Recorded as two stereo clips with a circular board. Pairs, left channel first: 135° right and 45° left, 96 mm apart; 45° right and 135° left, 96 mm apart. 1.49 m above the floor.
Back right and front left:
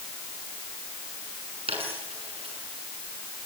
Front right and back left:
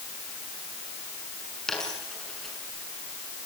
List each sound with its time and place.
1.7 s a dropped coin: 40° left, 7 m